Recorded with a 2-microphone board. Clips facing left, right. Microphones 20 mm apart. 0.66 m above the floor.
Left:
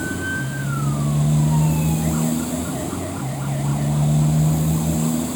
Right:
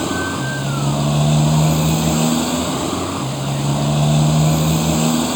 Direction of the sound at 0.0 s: 45° right (ahead or behind).